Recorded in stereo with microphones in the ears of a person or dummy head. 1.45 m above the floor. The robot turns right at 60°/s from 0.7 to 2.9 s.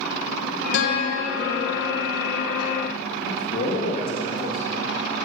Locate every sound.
0.7 s a guitar: 70° left, 1.2 m; by 1.9 s 140° left, 1.2 m
3.2 s a man speaking: 50° left (ahead or behind), 1.8 m